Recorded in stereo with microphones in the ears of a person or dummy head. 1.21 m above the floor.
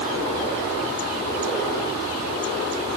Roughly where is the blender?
No blender in this recording.